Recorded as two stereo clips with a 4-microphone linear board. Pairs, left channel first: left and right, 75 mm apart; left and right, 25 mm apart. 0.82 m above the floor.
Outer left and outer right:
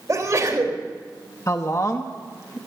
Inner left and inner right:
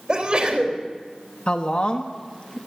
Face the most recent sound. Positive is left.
turn(degrees=40)  # may be behind; listen again after turning